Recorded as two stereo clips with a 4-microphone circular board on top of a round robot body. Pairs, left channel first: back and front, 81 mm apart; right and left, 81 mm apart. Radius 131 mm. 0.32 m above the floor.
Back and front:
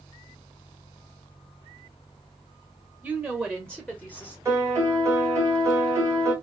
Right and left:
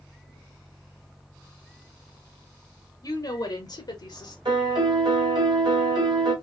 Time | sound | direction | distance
3.0 | a woman speaking | 80° right | 1.2 m
4.5 | a piano | 60° left | 2 m